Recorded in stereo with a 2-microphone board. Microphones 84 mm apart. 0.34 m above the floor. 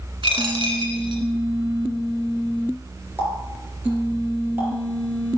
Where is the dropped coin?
75° right (ahead or behind), 1.6 m.